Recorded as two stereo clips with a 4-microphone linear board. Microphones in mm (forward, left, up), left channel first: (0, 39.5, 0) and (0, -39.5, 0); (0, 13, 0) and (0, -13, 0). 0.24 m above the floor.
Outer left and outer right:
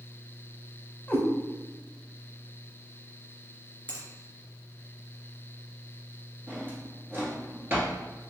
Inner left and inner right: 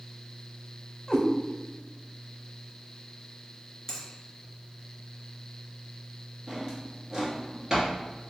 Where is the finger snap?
20° left (ahead or behind), 1.8 m.